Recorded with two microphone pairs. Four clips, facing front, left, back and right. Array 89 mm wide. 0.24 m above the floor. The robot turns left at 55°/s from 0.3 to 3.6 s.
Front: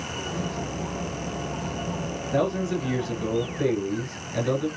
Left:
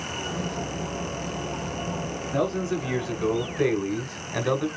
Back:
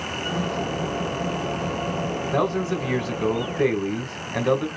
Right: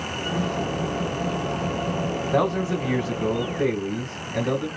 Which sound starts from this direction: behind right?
A man speaking, at 2.3 s.